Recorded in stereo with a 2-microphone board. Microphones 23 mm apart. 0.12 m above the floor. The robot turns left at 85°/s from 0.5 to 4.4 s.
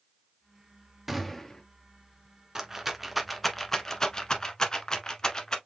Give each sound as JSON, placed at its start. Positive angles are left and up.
{"t": 1.1, "sound": "a gunshot", "azimuth_deg": -165, "distance_m": 1.0}
{"t": 2.5, "sound": "a rattle", "side_deg": -25, "distance_m": 0.9}